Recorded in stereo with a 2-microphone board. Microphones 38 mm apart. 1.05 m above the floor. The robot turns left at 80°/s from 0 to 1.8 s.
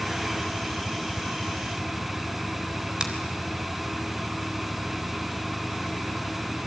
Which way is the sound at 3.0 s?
25° right (ahead or behind).